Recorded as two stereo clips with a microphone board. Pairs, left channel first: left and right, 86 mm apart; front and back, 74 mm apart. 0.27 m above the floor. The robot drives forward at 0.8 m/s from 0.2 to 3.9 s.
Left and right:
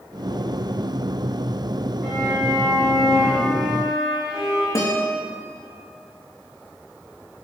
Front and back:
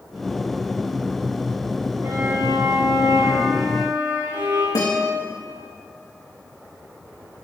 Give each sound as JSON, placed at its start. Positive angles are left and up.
{"t": 2.0, "sound": "a violin", "azimuth_deg": 170, "distance_m": 5.5}
{"t": 4.8, "sound": "a guitar", "azimuth_deg": 30, "distance_m": 4.5}